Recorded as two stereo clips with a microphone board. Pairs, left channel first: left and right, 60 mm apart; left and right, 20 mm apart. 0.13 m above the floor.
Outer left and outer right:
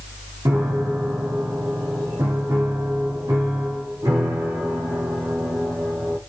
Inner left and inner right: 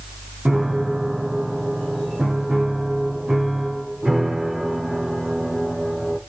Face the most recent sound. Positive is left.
turn(degrees=-75)  # may be behind; listen again after turning